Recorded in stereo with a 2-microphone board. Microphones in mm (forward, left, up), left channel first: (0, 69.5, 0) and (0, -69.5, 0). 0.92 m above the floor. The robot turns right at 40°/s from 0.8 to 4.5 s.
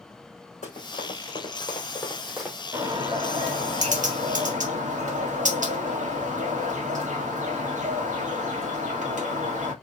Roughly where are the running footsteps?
Left.